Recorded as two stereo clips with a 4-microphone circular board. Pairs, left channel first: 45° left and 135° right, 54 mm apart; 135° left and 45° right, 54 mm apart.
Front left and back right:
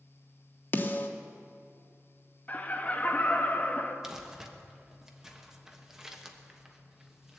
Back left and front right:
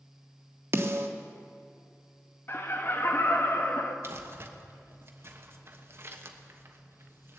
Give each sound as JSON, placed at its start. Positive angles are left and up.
{"t": 0.7, "sound": "a snare drum", "azimuth_deg": -5, "distance_m": 1.1}
{"t": 2.5, "sound": "laughter", "azimuth_deg": 100, "distance_m": 1.4}
{"t": 4.0, "sound": "crumpling", "azimuth_deg": -60, "distance_m": 1.2}